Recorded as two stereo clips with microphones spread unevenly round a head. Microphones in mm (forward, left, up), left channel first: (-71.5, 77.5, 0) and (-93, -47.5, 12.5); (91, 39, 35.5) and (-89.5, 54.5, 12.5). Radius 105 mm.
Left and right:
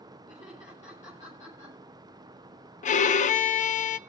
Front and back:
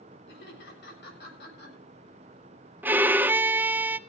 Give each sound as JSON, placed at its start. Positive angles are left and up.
{"t": 0.3, "sound": "laughter", "azimuth_deg": 20, "distance_m": 7.5}
{"t": 2.8, "sound": "a violin", "azimuth_deg": 90, "distance_m": 0.7}